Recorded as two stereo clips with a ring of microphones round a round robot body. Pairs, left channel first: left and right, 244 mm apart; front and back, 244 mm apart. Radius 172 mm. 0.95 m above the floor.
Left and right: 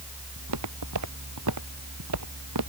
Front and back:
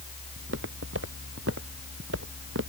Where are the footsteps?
120° right.